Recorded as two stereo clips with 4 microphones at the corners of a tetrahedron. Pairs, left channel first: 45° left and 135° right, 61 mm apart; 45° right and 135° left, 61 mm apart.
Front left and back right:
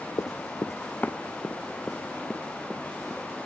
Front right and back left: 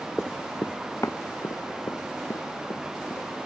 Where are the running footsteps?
45° left; by 3.3 s 40° right.